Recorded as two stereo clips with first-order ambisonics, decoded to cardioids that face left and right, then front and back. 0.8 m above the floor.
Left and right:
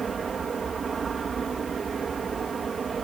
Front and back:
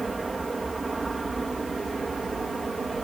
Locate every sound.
0.0 s an aircraft: 120° right